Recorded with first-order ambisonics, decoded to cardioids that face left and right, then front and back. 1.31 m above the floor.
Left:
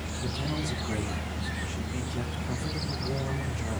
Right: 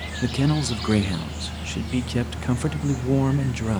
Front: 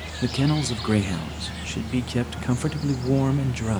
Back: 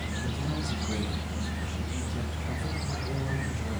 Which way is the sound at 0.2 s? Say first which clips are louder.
Right 9 dB, front 9 dB; 45° right.